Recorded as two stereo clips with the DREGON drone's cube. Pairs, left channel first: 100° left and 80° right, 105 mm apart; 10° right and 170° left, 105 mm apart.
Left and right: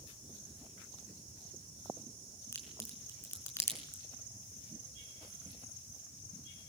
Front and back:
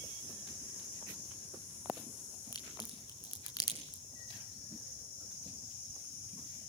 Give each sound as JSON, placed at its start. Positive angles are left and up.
{"t": 2.5, "sound": "a crack", "azimuth_deg": 35, "distance_m": 5.0}